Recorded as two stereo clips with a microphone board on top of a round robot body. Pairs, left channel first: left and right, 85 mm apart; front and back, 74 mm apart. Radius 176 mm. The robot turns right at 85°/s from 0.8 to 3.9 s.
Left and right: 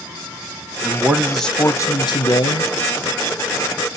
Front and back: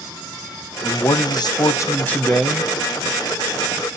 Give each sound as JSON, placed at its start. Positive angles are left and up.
{"t": 0.8, "sound": "a man speaking", "azimuth_deg": -45, "distance_m": 1.5}